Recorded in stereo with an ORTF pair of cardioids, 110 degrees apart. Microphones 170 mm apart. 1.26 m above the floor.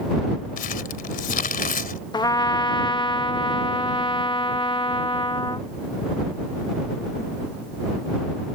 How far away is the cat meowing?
No cat meowing in this recording.